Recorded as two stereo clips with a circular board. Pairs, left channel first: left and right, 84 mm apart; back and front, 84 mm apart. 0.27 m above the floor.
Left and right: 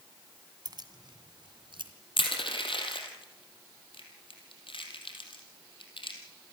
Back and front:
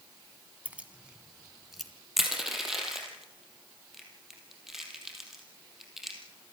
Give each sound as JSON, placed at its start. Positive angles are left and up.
{"t": 0.7, "sound": "keys jangling", "azimuth_deg": -70, "distance_m": 1.7}
{"t": 2.2, "sound": "crushing", "azimuth_deg": 85, "distance_m": 4.0}